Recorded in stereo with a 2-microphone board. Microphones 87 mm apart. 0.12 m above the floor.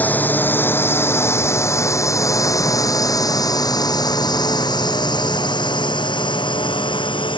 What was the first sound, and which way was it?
A drone, 20° left (ahead or behind).